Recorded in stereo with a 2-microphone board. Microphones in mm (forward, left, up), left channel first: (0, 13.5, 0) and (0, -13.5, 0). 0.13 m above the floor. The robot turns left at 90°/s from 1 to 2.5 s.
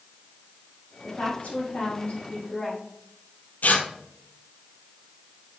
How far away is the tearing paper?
About 1.2 m.